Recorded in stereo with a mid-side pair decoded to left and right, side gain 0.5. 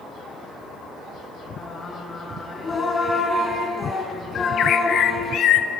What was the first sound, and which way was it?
Singing, 30° left.